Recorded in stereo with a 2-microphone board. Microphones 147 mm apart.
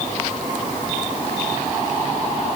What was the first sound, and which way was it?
Only background noise.